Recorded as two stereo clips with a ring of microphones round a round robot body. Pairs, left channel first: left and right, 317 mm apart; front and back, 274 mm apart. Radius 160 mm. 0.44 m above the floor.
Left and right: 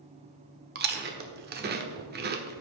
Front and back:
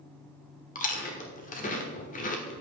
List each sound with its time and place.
0.8 s chewing: 50° right, 1.2 m